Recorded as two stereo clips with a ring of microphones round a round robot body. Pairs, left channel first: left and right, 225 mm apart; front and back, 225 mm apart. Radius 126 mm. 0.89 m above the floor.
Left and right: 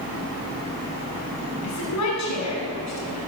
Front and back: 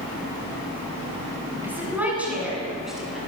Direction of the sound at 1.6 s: 100° left.